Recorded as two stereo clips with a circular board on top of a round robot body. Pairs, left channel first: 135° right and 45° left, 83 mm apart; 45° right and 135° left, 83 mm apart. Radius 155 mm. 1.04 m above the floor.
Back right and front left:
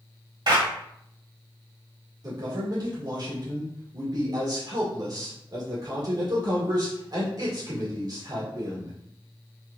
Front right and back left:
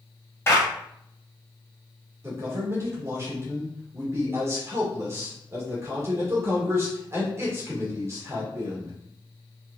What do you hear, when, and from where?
0.5 s a clap: 15° left, 2 m
2.2 s a man speaking: 80° left, 2.5 m